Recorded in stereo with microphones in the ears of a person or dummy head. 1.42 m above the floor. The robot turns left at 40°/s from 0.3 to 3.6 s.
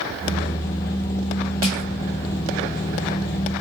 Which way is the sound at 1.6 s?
45° left (ahead or behind).